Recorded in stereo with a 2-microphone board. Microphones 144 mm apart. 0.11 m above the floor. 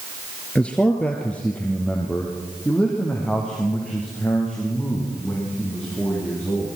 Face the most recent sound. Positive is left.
turn(degrees=10)  # may be behind; listen again after turning